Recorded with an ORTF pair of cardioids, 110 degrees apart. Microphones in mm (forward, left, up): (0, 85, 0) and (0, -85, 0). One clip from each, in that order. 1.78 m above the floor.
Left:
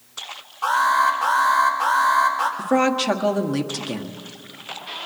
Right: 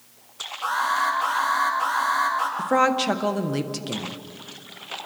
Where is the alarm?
Straight ahead, 9.5 m.